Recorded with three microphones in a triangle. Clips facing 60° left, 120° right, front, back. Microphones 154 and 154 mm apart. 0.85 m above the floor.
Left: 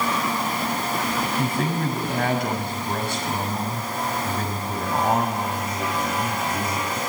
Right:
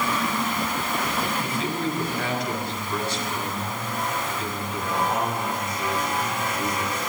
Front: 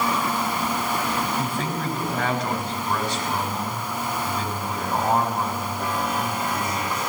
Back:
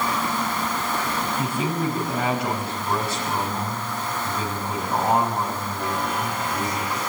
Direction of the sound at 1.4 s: 95° left.